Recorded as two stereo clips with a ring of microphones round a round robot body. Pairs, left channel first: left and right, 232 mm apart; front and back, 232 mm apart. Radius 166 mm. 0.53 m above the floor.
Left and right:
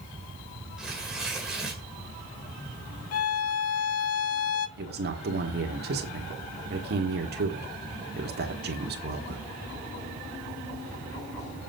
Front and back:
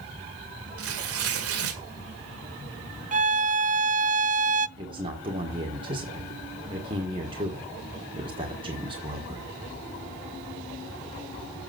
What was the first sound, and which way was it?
Tearing paper, straight behind.